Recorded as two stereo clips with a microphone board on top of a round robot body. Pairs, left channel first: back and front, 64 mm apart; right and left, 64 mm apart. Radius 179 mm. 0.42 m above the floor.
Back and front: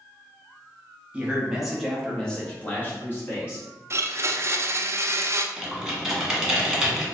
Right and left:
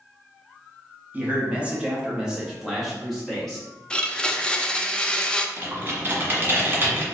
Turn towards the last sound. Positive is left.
turn(degrees=80)